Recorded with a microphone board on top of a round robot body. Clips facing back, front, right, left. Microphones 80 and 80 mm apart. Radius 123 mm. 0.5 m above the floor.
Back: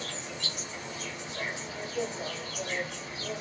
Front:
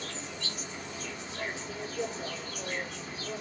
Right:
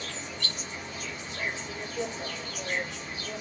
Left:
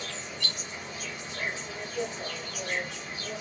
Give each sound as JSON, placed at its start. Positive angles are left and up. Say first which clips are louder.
{"t": 0.0, "sound": "an insect", "louder": "back 1 dB, even", "azimuth_deg": 160, "distance_m": 1.2}